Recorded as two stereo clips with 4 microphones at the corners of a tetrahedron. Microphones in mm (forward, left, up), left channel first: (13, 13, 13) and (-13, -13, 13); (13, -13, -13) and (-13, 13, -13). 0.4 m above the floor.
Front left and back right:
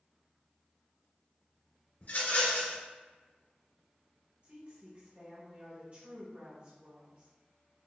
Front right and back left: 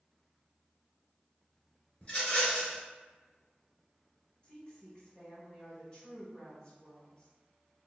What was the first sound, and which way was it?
A rattle, 15° left.